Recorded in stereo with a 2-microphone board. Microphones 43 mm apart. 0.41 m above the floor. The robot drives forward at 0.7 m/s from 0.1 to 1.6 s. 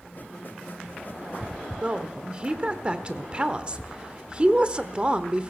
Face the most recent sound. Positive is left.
turn(degrees=-25)  # may be behind; listen again after turning